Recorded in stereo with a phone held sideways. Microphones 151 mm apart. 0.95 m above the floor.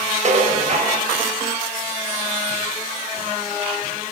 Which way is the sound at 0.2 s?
50° right (ahead or behind).